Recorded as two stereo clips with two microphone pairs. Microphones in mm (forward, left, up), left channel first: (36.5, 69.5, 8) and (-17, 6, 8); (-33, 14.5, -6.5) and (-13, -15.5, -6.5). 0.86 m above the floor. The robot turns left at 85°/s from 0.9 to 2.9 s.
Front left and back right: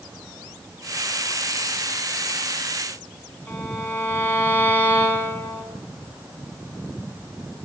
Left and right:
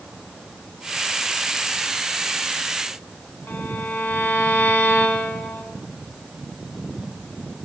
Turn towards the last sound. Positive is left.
turn(degrees=120)